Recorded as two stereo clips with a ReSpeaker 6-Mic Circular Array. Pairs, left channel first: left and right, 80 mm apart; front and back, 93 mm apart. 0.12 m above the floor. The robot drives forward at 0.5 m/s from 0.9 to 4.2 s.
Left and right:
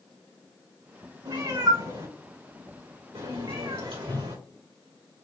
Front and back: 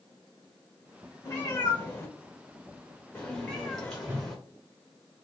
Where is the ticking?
No ticking in this recording.